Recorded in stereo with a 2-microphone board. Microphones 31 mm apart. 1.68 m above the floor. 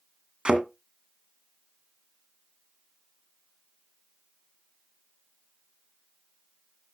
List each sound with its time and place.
0.5 s a thud: 35° right (ahead or behind), 1.9 m